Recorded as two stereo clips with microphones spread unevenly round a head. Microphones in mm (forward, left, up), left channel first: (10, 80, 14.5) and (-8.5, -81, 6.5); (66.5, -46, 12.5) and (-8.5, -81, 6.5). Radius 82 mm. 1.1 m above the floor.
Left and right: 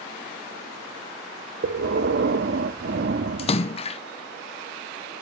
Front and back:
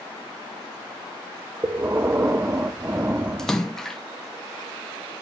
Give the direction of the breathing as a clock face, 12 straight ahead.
3 o'clock.